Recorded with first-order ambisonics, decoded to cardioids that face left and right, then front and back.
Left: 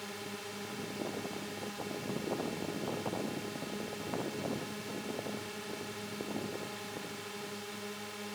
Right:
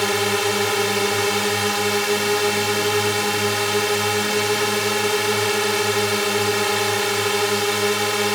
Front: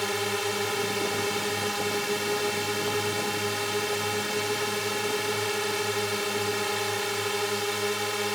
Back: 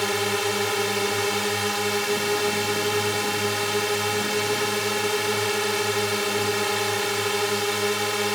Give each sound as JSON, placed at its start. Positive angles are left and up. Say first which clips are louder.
{"t": 0.0, "sound": "a drone", "louder": "right 23 dB, back 4 dB", "azimuth_deg": -105}